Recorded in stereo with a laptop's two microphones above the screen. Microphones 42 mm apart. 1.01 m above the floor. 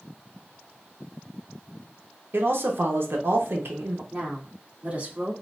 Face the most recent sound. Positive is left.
turn(degrees=-35)  # may be behind; listen again after turning